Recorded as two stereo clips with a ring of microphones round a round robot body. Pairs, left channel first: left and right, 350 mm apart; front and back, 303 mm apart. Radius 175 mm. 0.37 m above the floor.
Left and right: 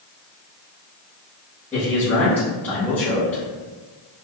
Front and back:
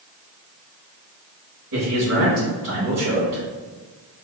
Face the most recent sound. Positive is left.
turn(degrees=175)